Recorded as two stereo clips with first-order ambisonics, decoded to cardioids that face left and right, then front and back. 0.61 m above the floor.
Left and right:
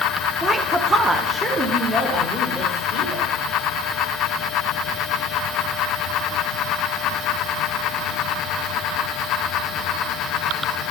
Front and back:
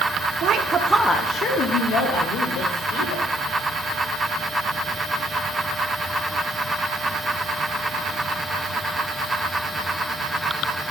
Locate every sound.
0.4 s a woman speaking: 165° right, 0.9 m; by 3.2 s 5° right, 2.5 m